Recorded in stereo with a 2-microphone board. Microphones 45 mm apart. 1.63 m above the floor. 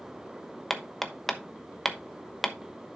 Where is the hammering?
10° left (ahead or behind), 1.1 m.